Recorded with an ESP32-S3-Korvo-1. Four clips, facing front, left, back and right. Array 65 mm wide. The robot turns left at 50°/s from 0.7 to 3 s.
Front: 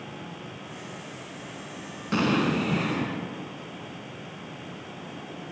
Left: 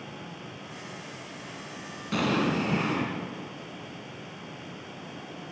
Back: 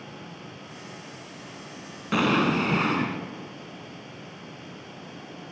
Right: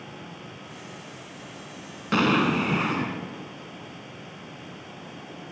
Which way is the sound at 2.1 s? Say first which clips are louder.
Right 4 dB, back 2 dB; 110° right.